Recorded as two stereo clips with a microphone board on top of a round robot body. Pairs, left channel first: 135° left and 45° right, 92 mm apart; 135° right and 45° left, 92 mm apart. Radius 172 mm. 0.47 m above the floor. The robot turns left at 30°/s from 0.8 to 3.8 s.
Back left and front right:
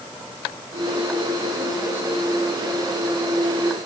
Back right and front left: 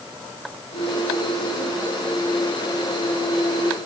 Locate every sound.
Only background noise.